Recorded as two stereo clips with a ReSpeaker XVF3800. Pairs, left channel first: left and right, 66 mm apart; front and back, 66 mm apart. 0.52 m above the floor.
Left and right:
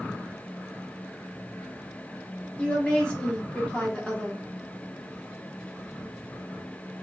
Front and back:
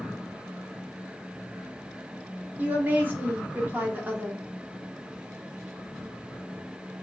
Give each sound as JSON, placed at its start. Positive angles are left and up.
{"t": 2.6, "sound": "a woman speaking", "azimuth_deg": 150, "distance_m": 0.7}